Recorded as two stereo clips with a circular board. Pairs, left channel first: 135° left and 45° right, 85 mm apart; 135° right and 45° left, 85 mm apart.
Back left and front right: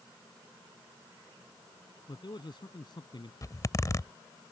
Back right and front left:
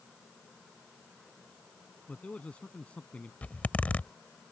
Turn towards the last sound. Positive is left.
turn(degrees=160)